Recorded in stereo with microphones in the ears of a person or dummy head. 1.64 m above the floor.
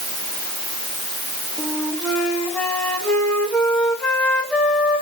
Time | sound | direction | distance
1.6 | a flute | 10° left (ahead or behind) | 1.5 m